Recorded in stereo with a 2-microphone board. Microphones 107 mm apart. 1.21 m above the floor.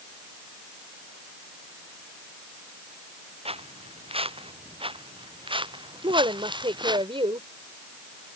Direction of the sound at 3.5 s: 65° right (ahead or behind).